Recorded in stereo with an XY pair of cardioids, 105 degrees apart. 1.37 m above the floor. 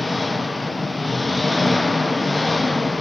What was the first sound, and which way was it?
An engine running, 10° left.